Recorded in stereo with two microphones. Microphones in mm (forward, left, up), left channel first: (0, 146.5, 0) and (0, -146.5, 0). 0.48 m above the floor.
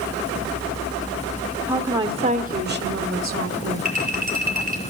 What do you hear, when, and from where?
1.7 s a woman speaking: 5° right (ahead or behind), 1.6 m; by 3.9 s 55° right (ahead or behind), 2.5 m
3.9 s a clink: 30° right (ahead or behind), 7 m